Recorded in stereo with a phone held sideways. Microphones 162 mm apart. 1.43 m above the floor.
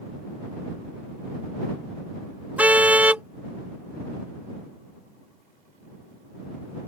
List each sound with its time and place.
2.6 s a car horn: 10° right (ahead or behind)